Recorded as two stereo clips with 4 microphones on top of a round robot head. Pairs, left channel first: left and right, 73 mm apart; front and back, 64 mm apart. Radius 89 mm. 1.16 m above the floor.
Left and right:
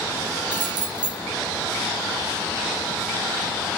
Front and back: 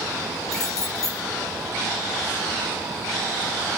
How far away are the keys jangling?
About 0.9 m.